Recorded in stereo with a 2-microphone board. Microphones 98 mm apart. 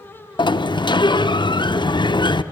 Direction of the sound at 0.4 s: 50° left (ahead or behind).